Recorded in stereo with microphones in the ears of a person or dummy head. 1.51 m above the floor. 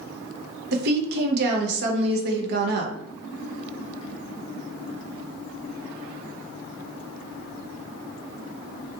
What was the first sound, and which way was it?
A woman speaking, 60° right (ahead or behind).